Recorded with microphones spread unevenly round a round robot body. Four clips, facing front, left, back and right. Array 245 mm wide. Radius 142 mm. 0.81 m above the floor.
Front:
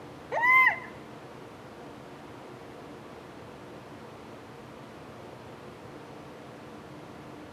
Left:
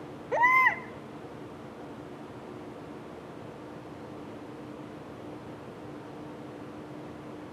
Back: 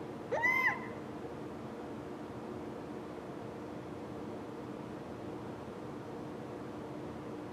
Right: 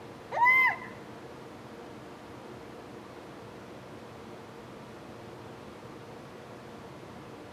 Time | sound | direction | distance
0.3 | a baby crying | 120° left | 1.1 m